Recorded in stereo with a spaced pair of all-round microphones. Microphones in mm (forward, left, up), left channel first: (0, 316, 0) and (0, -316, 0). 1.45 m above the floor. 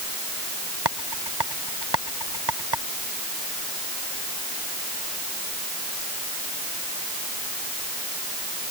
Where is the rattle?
40° right (ahead or behind).